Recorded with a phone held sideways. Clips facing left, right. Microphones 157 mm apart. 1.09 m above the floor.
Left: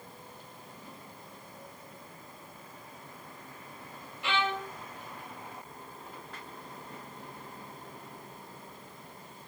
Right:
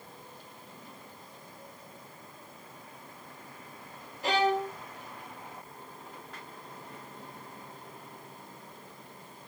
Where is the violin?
40° right (ahead or behind), 0.5 m.